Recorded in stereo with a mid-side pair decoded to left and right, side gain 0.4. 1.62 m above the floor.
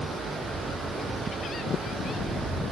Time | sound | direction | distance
0.0 | running water | 60° right | 6.5 m